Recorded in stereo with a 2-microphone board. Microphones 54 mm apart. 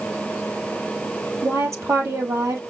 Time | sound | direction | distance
1.4 | a woman speaking | 55° right (ahead or behind) | 2.5 m